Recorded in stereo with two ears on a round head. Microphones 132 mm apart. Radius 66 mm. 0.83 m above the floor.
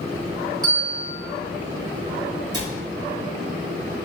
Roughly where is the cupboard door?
Right.